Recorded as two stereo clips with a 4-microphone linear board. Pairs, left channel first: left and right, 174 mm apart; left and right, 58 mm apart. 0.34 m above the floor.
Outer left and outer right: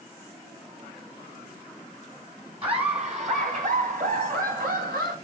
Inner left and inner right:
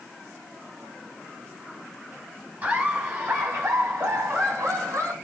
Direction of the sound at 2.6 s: 35° right (ahead or behind).